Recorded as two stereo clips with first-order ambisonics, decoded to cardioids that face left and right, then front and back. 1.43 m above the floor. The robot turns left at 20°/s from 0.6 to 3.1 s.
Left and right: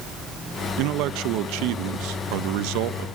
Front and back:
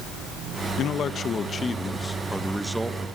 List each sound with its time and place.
0.8 s a man speaking: 55° right, 1.2 m; by 3.1 s 100° right, 1.2 m